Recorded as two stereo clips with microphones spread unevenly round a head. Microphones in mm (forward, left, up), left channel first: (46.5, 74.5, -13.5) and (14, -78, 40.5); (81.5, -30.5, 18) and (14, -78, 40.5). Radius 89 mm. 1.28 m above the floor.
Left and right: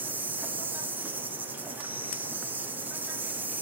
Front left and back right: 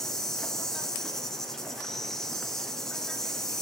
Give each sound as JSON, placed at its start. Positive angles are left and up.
{"t": 0.0, "sound": "an insect", "azimuth_deg": 10, "distance_m": 0.8}